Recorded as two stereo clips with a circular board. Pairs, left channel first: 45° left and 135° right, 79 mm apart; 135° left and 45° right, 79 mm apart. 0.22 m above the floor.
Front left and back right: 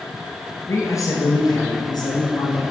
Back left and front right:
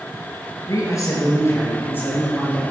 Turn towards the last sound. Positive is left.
turn(degrees=65)